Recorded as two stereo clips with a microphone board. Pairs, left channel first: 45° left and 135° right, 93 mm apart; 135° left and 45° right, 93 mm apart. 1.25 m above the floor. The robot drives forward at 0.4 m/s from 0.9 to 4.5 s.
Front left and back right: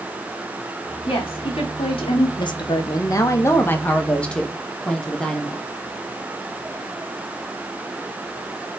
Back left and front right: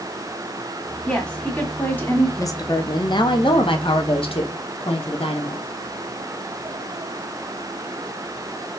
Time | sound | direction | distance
1.1 | a woman speaking | 55° left | 2 m
2.4 | a woman speaking | 80° left | 0.9 m